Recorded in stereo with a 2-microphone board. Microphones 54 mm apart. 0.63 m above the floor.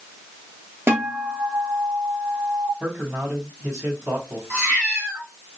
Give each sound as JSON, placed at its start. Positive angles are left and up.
{"t": 0.9, "sound": "a guitar", "side_deg": -45, "distance_m": 1.2}
{"t": 2.8, "sound": "a man speaking", "side_deg": -55, "distance_m": 3.0}
{"t": 4.5, "sound": "a cat meowing", "side_deg": -40, "distance_m": 2.5}